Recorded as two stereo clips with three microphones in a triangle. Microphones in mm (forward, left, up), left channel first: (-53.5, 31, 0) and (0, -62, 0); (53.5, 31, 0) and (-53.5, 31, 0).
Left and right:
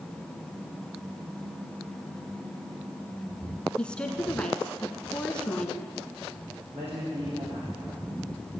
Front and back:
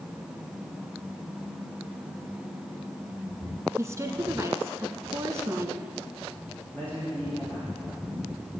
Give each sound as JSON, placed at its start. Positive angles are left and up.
{"t": 3.8, "sound": "a woman speaking", "azimuth_deg": -170, "distance_m": 1.1}
{"t": 6.7, "sound": "a man speaking", "azimuth_deg": -75, "distance_m": 6.0}